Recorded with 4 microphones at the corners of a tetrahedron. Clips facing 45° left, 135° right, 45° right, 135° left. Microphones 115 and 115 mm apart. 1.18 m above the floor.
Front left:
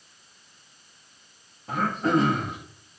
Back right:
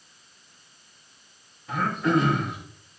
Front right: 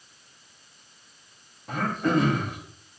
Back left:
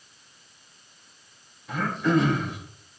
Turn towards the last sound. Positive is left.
turn(degrees=-5)